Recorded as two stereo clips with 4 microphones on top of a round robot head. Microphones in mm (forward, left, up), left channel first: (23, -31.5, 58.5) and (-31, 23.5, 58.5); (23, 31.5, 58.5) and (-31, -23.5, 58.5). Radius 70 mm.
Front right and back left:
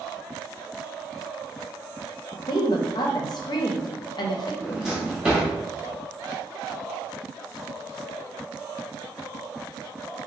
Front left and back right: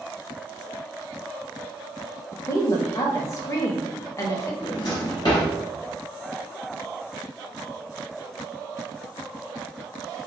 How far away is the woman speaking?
About 0.6 m.